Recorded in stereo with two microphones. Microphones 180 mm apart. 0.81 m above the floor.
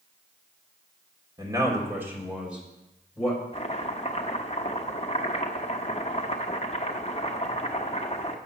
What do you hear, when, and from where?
1.4 s a man speaking: 20° right (ahead or behind), 2 m; by 3.4 s 5° left (ahead or behind), 4 m
3.5 s chopping: 35° left (ahead or behind), 0.9 m